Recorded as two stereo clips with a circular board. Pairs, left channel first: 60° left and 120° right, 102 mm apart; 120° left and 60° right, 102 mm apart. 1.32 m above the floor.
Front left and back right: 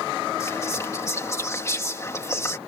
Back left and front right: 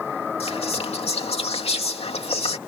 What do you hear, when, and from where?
0.4 s whispering: 120° left